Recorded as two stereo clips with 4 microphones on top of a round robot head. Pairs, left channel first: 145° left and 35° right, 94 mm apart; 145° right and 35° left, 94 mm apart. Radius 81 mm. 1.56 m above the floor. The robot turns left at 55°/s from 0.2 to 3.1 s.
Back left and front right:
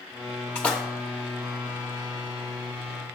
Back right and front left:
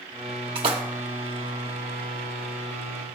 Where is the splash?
75° left, 0.7 m; by 0.8 s 60° left, 0.7 m.